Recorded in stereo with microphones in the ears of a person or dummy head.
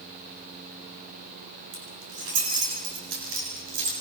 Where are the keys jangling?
80° right, 8.5 m; by 3.9 s 70° right (ahead or behind), 7 m.